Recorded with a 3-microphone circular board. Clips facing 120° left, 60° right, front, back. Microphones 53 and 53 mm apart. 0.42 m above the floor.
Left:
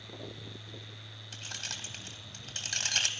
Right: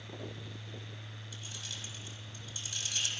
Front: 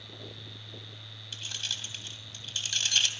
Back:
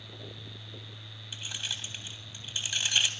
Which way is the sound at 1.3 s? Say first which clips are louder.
Left 5 dB, even; 100° left.